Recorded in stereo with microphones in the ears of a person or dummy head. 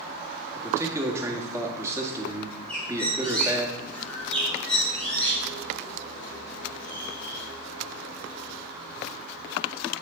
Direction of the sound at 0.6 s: 15° right (ahead or behind).